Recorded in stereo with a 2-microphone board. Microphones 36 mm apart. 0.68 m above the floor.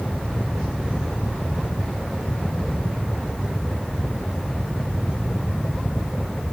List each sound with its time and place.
Only background noise.